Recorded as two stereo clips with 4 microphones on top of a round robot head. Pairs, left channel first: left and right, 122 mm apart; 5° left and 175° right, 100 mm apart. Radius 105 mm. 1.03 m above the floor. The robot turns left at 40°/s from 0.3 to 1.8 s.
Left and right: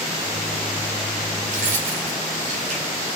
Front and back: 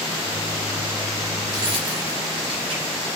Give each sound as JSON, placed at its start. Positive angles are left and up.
{"t": 1.5, "sound": "keys jangling", "azimuth_deg": -110, "distance_m": 3.0}